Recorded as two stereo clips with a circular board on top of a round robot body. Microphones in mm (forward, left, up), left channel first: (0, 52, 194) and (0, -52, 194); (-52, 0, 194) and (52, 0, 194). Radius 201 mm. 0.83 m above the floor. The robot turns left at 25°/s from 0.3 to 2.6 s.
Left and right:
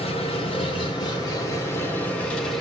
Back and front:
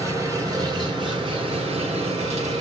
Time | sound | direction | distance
0.0 | an engine running | 60° left | 4 m